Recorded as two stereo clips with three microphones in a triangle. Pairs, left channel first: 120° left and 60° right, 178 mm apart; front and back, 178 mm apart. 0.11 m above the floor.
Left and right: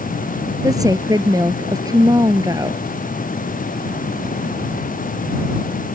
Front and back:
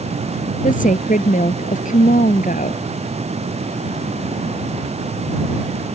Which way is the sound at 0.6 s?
5° left.